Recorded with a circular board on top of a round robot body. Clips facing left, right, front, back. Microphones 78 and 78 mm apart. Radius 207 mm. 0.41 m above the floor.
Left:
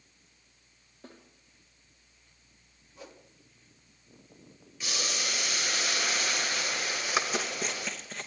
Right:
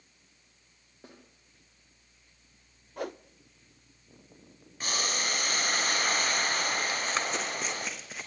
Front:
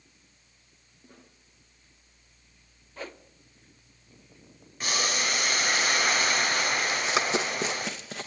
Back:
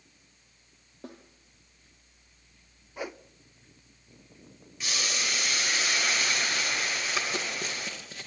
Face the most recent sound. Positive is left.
turn(degrees=-5)